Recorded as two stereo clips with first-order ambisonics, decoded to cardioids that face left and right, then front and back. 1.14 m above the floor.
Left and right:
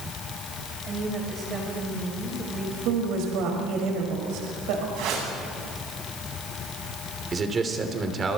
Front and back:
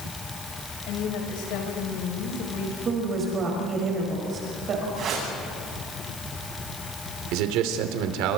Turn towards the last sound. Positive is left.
turn(degrees=-160)